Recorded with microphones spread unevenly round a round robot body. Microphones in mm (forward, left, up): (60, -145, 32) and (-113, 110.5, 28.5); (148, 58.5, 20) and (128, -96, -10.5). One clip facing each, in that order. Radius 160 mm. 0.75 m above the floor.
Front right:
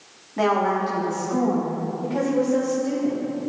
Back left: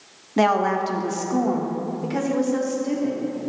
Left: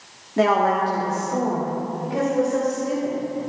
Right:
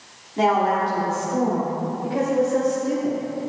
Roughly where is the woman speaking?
Behind left.